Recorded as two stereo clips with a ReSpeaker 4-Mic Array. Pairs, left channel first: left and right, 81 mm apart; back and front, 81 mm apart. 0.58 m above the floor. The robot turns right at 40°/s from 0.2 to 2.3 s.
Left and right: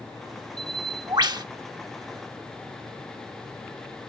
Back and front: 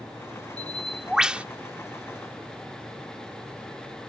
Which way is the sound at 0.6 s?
105° right.